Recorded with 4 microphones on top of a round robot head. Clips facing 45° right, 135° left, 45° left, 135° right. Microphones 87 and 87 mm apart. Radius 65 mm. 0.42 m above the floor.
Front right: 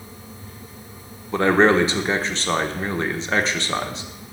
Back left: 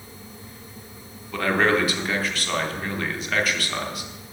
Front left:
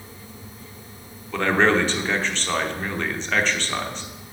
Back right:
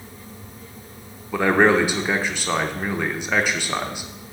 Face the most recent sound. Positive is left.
turn(degrees=-65)